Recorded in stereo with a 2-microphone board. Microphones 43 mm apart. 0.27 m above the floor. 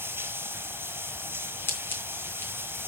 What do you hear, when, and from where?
0.0 s running water: 65° right (ahead or behind), 1.2 m
1.7 s scissors: 65° left (ahead or behind), 3.5 m